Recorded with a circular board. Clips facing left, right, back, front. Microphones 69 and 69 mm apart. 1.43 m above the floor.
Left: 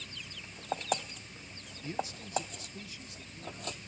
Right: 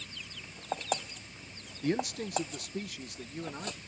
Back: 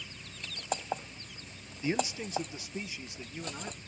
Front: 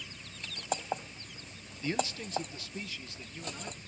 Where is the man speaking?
105° right; by 3.8 s 110° right.